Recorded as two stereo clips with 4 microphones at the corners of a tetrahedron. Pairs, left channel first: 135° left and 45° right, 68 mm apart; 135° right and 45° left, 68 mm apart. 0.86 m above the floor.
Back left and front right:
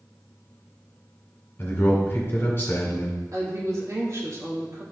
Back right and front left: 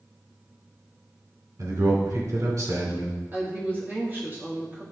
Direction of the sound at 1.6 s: 80° left.